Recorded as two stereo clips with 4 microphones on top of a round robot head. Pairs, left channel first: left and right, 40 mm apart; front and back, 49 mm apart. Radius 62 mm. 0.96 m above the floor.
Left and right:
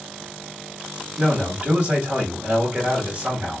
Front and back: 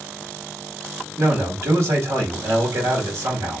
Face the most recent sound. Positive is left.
turn(degrees=-150)